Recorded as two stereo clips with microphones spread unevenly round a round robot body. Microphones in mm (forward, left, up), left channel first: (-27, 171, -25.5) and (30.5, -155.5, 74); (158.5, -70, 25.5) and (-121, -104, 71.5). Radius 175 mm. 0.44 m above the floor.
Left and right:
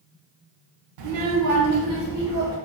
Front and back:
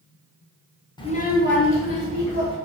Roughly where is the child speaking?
Ahead right.